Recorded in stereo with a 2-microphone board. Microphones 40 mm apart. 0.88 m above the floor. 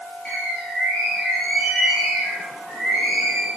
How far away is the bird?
About 7 m.